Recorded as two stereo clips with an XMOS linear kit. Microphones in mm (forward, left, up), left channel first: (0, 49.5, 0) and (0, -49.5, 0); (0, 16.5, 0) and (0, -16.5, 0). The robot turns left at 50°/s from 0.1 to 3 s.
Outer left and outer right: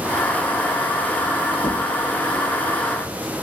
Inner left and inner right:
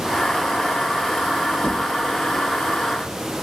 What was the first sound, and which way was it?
Knocking, 55° left (ahead or behind).